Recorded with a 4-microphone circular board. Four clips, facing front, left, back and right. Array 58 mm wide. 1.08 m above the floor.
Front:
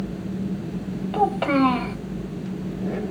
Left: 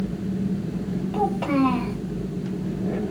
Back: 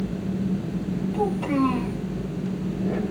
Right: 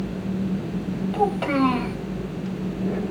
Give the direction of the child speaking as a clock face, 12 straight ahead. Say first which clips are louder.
Right 1 dB, front 5 dB; 12 o'clock.